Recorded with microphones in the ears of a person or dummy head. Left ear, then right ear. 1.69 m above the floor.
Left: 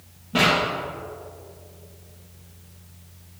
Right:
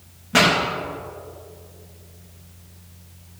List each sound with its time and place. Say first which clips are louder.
0.3 s a pop: right 3 dB; 55° right (ahead or behind), 3 m